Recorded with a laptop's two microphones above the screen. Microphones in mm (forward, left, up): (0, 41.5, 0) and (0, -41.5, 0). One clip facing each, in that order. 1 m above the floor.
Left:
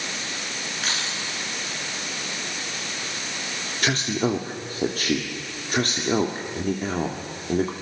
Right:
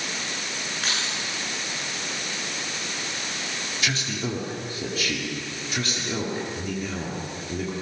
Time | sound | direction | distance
0.8 | keys jangling | centre (ahead or behind) | 9 m
3.8 | a man speaking | 50° left (ahead or behind) | 2 m